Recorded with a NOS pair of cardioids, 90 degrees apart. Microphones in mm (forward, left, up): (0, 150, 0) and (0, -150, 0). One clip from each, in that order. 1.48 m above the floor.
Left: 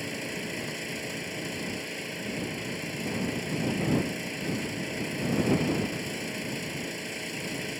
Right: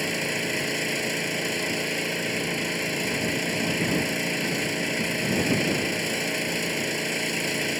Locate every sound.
0.0 s an engine running: 65° right